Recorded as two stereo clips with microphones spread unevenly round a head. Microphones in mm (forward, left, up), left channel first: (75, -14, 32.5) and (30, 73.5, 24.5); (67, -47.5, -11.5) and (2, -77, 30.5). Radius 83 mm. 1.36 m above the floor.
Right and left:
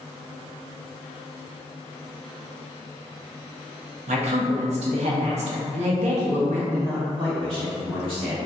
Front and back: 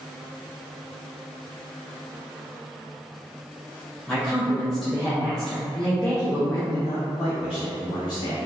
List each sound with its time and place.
4.1 s a woman speaking: 120° left, 0.8 m
6.7 s a man speaking: 85° left, 1.5 m